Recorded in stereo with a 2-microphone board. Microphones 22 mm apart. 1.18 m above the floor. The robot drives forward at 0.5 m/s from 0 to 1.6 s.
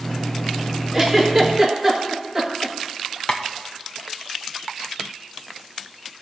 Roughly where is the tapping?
Left.